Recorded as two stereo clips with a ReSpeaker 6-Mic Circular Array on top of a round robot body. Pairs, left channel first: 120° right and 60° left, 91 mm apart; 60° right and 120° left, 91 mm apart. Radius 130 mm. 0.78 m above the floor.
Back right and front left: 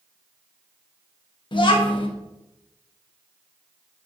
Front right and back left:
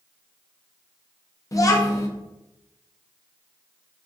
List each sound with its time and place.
1.5 s a child speaking: 105° right, 0.7 m